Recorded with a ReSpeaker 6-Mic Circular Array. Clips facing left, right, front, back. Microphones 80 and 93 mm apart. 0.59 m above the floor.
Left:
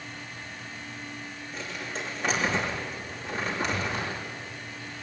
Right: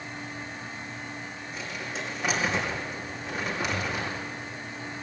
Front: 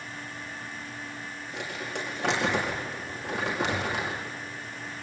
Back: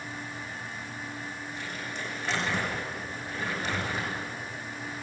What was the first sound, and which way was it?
Crumpling, 5° right.